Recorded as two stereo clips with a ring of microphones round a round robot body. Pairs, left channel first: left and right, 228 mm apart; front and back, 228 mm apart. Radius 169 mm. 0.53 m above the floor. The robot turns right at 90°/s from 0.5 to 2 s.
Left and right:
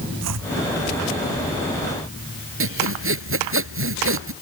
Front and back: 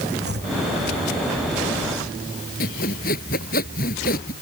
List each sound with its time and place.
0.2 s chopping: 120° right
2.6 s sawing: 65° right